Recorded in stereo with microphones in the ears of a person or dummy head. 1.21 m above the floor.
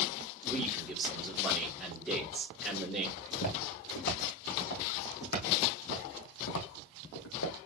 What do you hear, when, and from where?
0.5 s a man speaking: 5° left (ahead or behind), 3.5 m
3.2 s footsteps: 55° left (ahead or behind), 5 m; by 7.6 s 65° left (ahead or behind), 2.5 m